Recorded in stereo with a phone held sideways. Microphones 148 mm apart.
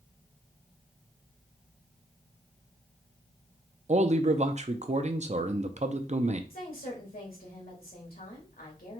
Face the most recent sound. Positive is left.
turn(degrees=80)